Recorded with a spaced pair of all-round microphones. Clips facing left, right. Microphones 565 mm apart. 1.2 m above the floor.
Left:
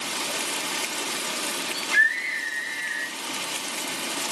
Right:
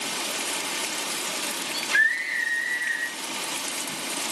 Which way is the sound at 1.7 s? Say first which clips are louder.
Left 1 dB; 65° left (ahead or behind).